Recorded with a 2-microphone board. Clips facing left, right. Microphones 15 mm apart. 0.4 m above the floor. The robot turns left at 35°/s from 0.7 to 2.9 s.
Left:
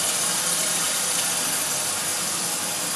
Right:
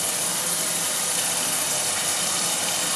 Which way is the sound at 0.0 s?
5° left.